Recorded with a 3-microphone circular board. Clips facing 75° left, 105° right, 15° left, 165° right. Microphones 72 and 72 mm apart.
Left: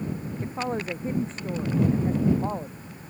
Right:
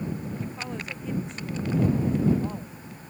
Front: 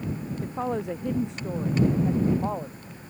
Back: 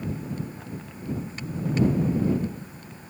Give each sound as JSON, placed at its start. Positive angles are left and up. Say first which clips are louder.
{"t": 0.4, "sound": "a woman speaking", "louder": "left 6 dB, front 9 dB", "azimuth_deg": 20}